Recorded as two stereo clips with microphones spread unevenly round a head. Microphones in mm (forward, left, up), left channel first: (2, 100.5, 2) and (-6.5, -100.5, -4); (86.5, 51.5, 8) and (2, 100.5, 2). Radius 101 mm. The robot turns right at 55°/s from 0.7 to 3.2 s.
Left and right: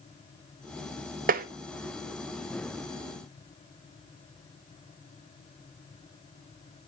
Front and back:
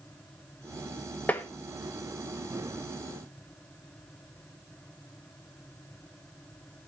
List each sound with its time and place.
1.3 s tapping: 105° right, 0.6 m; by 1.5 s 95° right, 0.6 m